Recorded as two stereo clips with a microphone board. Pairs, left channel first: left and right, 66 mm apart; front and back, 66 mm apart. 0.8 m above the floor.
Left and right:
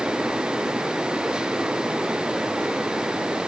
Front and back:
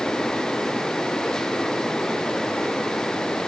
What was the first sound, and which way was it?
Only background noise.